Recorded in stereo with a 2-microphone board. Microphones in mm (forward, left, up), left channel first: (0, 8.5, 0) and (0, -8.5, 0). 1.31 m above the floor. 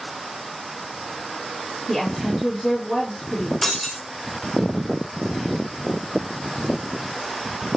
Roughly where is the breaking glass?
Left.